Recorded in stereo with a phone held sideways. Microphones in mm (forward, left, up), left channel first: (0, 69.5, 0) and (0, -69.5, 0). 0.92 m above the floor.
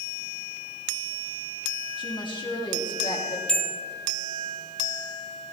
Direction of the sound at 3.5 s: 5° left (ahead or behind).